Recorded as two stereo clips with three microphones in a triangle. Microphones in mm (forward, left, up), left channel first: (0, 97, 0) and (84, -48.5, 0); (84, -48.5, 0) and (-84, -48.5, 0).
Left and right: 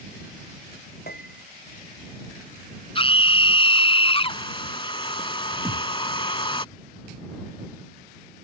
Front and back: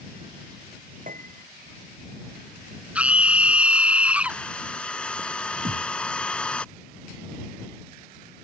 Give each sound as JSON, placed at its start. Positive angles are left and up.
{"t": 1.1, "sound": "a piano", "azimuth_deg": 145}
{"t": 3.0, "sound": "a scream", "azimuth_deg": 105}
{"t": 4.3, "sound": "a hair dryer", "azimuth_deg": 80}
{"t": 5.7, "sound": "a thud", "azimuth_deg": -145}